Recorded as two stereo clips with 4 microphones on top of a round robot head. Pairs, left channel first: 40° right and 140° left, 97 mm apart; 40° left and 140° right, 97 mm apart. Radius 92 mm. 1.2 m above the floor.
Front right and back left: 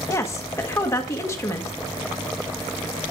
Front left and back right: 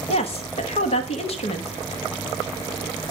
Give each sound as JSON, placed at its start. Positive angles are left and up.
{"t": 0.1, "sound": "a woman speaking", "azimuth_deg": 20, "distance_m": 1.4}